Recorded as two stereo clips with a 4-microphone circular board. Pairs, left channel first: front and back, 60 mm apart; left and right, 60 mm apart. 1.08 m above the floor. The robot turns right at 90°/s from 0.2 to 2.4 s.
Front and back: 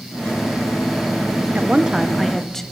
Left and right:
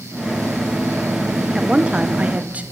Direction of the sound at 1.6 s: 155° right.